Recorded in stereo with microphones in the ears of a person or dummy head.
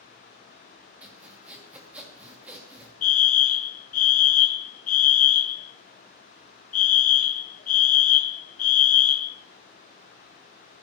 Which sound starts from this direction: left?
A fire alarm, at 3.0 s.